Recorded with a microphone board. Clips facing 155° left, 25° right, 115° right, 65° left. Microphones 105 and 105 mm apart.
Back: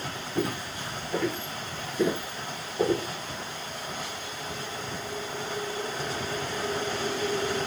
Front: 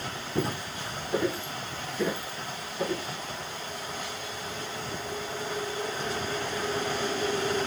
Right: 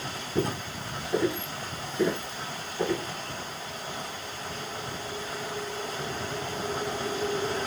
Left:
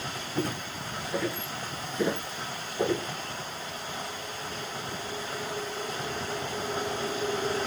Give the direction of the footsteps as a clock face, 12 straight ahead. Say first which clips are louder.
Back 1 dB, right 3 dB; 2 o'clock.